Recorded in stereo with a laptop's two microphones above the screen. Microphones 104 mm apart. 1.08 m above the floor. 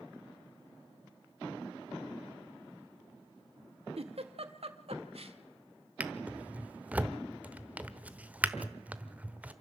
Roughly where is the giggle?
Right.